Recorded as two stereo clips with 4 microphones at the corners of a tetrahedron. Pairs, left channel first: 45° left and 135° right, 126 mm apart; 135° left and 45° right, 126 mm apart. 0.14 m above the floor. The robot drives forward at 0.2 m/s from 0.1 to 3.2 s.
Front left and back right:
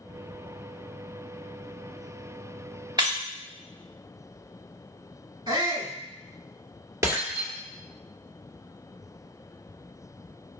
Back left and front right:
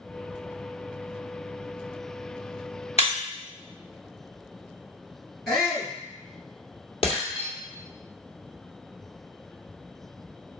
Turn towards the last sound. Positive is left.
turn(degrees=165)